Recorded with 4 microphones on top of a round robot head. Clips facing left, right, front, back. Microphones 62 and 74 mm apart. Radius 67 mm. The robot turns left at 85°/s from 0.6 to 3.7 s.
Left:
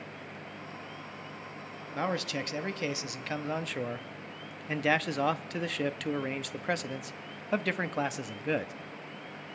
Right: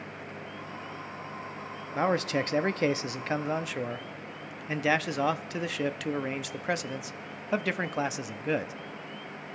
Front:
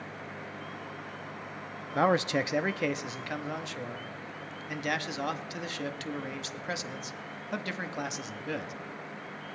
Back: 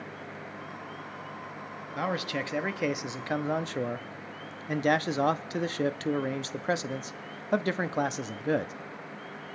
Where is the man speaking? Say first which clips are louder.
Right 5 dB, front 6 dB; 25° right, 0.8 m; by 8.7 s 175° right, 0.8 m.